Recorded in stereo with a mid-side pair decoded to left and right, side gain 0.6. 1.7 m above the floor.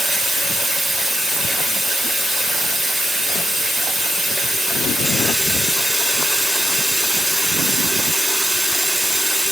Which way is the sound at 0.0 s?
5° right.